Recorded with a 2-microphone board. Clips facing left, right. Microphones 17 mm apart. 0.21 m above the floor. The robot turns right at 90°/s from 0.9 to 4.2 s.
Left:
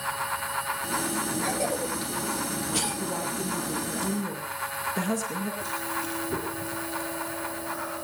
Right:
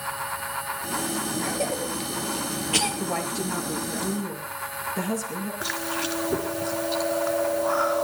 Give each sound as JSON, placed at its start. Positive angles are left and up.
{"t": 1.4, "sound": "a cough", "side_deg": 0, "distance_m": 5.0}
{"t": 3.0, "sound": "a woman speaking", "azimuth_deg": -80, "distance_m": 3.5}
{"t": 5.6, "sound": "chewing", "side_deg": -45, "distance_m": 2.0}